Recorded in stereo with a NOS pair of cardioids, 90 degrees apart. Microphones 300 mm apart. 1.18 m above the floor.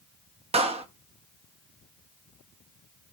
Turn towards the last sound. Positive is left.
turn(degrees=-20)